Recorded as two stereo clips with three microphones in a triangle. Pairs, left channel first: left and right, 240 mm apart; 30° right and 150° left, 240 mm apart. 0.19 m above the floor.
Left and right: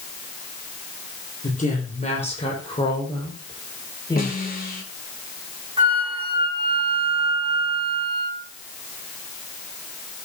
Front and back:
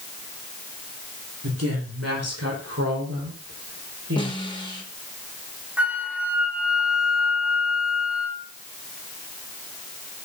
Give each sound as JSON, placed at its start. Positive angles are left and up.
{"t": 1.4, "sound": "a woman speaking", "azimuth_deg": 145, "distance_m": 5.5}
{"t": 4.2, "sound": "a snare drum", "azimuth_deg": 40, "distance_m": 3.5}
{"t": 5.8, "sound": "a flute", "azimuth_deg": -130, "distance_m": 1.7}